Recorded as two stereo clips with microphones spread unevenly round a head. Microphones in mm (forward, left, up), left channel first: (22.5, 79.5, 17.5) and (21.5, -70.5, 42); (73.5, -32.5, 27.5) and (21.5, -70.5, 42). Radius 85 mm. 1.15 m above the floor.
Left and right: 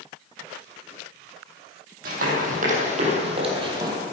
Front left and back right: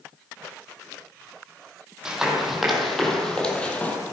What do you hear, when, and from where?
2.0 s running footsteps: 70° right, 3 m; by 4.0 s 35° right, 2.5 m